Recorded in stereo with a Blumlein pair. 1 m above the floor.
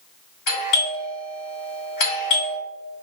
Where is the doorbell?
45° left, 1.8 m.